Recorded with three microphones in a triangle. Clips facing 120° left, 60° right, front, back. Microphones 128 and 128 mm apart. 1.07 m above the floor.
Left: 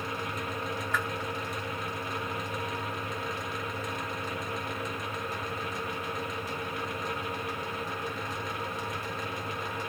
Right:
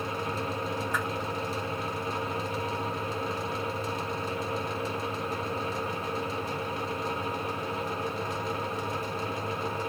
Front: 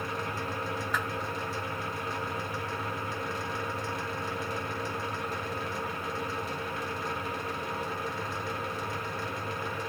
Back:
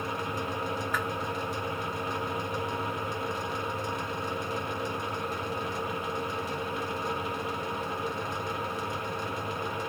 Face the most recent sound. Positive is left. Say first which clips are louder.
# left 2 dB, even
turn(degrees=140)